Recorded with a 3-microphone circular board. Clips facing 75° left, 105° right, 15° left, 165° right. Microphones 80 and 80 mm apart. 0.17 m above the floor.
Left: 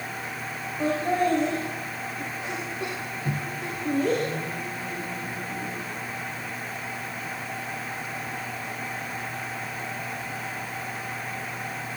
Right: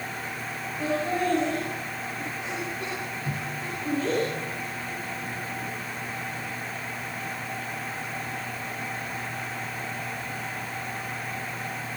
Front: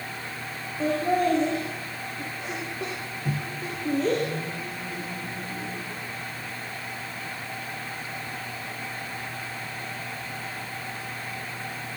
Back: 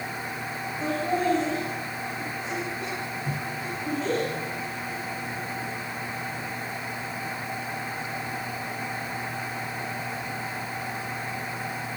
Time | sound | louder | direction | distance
0.8 | laughter | left 3 dB, front 3 dB | 15° left | 10 m
3.2 | a microwave | left 1 dB, even | 40° left | 2.5 m